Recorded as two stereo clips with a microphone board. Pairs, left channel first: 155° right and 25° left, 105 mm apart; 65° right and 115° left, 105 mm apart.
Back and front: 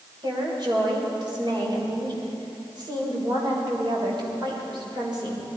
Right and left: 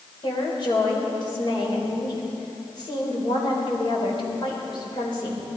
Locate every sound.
0.2 s a woman speaking: 25° right, 4 m